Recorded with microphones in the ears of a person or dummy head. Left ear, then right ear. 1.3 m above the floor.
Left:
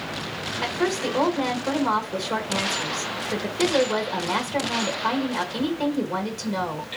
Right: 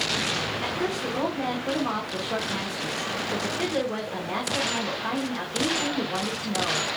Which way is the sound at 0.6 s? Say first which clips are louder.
Left 3 dB; 35° left (ahead or behind).